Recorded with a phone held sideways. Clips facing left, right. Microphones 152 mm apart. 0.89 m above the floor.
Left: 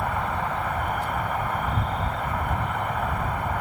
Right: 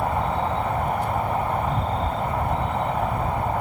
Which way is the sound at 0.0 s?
30° right (ahead or behind).